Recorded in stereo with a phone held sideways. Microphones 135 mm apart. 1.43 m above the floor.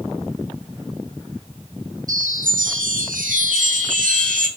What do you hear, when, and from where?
2.1 s a chime: 80° right, 2 m